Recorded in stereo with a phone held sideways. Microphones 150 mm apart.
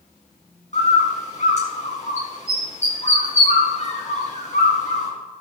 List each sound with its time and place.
0.7 s a bird: 50° left (ahead or behind), 3.5 m